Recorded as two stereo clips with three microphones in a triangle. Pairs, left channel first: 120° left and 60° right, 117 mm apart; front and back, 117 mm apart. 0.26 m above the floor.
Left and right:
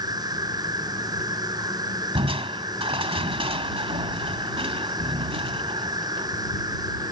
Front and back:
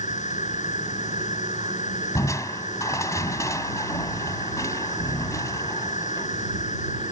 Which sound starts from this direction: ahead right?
Crushing, at 2.1 s.